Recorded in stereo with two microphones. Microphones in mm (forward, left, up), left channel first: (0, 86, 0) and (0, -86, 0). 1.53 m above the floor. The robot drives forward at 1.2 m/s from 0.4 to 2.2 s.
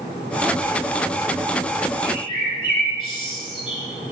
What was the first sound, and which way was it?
A bird, 30° left (ahead or behind).